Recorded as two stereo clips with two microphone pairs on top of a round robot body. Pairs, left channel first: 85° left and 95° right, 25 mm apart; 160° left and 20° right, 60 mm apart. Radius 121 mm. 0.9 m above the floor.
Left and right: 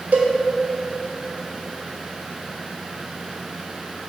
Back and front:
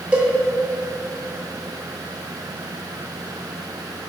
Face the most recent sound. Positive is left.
turn(degrees=-85)